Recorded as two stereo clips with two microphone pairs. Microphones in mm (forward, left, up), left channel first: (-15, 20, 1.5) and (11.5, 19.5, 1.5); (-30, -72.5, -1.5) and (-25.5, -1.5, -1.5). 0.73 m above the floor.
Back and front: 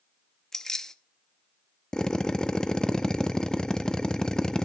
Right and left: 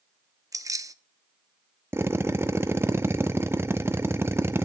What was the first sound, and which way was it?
Keys jangling, 120° left.